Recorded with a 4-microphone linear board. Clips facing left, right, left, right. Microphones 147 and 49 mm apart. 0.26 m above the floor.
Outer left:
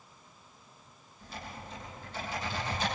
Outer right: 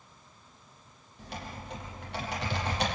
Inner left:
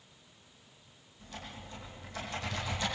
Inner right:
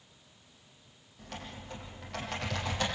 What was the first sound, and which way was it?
Typing on a keyboard, 70° right (ahead or behind).